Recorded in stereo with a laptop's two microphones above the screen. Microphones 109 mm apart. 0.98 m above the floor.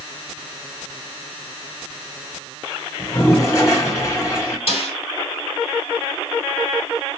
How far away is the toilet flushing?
About 1.5 m.